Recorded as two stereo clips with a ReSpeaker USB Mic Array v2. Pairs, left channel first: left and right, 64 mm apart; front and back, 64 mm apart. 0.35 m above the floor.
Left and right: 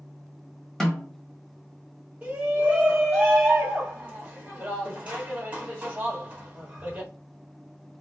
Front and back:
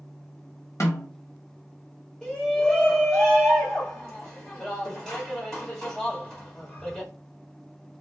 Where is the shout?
65° right, 1.2 m.